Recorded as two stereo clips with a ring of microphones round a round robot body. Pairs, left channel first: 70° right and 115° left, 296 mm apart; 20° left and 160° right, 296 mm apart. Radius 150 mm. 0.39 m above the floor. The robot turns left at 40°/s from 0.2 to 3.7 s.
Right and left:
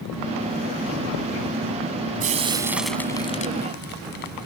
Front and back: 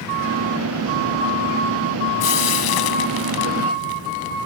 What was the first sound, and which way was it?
Frying, 50° left.